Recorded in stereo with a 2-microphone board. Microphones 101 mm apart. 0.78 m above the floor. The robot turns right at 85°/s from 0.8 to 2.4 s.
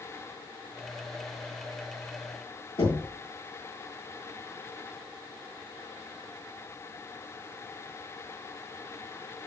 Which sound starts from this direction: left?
Knocking, at 2.8 s.